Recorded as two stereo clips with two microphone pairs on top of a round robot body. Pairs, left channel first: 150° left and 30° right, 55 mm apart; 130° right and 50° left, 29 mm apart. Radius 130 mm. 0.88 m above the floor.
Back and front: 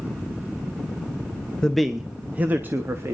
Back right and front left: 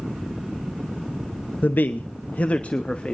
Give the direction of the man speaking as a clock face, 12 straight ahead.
5 o'clock.